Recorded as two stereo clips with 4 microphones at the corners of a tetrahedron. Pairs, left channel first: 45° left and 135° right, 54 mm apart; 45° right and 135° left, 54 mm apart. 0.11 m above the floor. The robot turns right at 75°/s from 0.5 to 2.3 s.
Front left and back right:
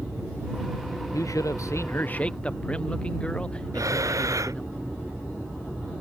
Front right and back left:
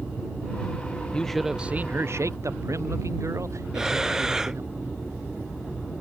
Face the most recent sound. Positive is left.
turn(degrees=-145)